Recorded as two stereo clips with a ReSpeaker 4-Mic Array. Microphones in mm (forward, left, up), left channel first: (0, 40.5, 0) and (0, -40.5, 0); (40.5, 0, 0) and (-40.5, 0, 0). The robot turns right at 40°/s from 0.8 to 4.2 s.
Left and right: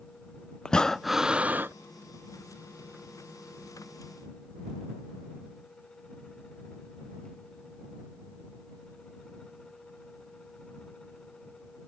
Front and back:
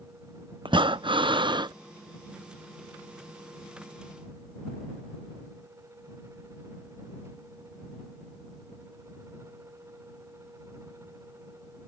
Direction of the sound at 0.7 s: 170° left.